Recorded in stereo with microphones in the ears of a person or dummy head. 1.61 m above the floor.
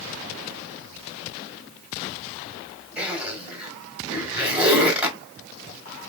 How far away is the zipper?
About 1.7 m.